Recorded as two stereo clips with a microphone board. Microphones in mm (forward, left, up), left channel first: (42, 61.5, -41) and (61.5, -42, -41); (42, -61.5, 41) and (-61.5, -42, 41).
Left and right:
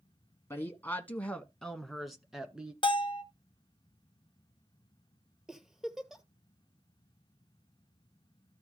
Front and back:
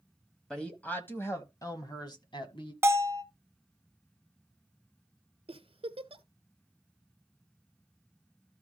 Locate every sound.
0.5 s a woman speaking: 70° left, 1.3 m; by 2.7 s straight ahead, 1.8 m
2.8 s a bell: 110° left, 1.1 m
5.5 s a giggle: 165° right, 1.1 m